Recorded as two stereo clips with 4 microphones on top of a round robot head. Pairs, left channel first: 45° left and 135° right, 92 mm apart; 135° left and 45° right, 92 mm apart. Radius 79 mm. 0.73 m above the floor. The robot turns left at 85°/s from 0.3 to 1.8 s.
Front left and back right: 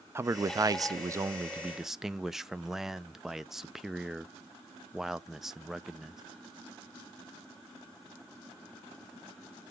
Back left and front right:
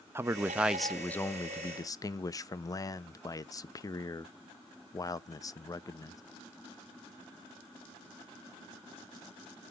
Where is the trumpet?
No trumpet in this recording.